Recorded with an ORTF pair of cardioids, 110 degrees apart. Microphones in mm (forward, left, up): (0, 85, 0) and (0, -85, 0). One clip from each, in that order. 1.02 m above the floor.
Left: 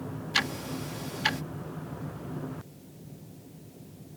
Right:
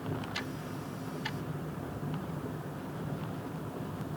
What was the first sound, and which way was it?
Ticking, 70° left.